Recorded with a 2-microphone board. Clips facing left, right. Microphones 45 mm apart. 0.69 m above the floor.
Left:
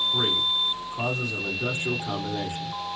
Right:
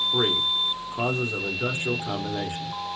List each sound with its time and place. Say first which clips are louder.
0.1 s a man speaking: right 1 dB; 35° right (ahead or behind), 1.1 m